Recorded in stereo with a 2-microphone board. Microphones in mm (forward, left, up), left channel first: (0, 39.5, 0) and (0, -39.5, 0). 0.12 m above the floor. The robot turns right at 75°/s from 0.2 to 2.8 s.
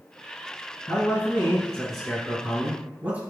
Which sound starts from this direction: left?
A man speaking, at 0.9 s.